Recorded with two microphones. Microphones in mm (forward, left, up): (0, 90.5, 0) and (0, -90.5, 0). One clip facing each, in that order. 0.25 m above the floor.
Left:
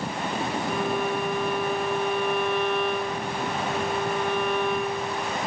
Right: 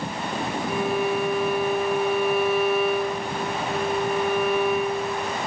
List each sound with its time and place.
0.7 s a violin: 10° right (ahead or behind), 0.8 m